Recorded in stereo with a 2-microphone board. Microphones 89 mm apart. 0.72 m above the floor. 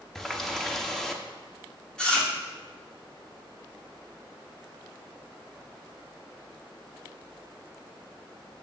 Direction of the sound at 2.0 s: 10° left (ahead or behind).